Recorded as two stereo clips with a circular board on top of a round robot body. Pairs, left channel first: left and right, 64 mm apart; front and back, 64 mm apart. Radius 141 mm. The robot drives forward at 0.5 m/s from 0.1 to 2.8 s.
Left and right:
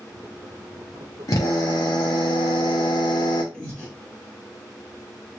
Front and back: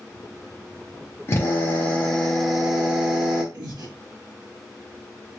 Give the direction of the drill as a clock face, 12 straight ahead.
10 o'clock.